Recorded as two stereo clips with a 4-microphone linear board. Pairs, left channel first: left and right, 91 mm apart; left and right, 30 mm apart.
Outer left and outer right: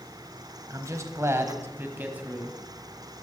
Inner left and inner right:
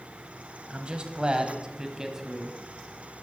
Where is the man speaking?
40° right (ahead or behind), 1.3 m; by 2.6 s 15° right (ahead or behind), 1.6 m.